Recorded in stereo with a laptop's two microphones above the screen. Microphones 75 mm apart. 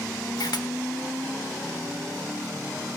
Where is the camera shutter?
70° left (ahead or behind), 1.1 m.